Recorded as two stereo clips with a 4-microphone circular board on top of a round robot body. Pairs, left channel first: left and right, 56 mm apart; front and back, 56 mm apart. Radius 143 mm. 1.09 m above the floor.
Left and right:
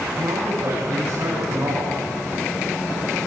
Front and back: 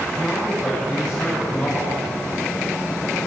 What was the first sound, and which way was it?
A man speaking, 80° right.